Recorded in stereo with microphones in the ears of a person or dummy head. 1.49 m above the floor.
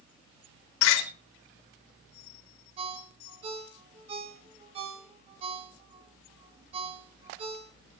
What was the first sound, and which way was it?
A door slam, 85° left.